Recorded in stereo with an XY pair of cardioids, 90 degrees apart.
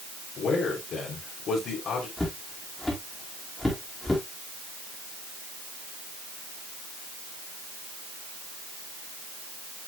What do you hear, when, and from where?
0.4 s a man speaking: 65° left, 3 m
2.2 s footsteps: 15° left, 3.5 m